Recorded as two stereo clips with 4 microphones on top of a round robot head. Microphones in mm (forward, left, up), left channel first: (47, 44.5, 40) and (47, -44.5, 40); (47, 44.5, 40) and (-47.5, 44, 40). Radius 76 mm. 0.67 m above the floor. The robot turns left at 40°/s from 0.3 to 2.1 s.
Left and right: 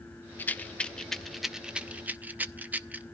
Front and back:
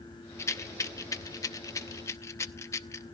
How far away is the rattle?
About 0.7 m.